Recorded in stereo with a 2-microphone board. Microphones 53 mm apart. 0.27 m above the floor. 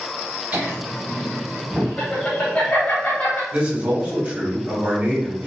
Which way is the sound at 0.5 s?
35° right (ahead or behind).